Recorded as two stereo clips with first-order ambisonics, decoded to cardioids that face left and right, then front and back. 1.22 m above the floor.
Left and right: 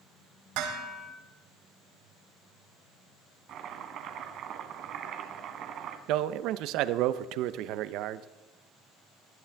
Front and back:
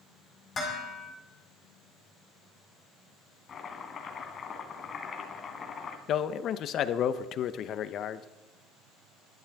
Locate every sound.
0.6 s dishes clattering: 75° right, 5.5 m
3.5 s chopping: 55° right, 1.6 m
6.1 s a man speaking: 55° right, 0.7 m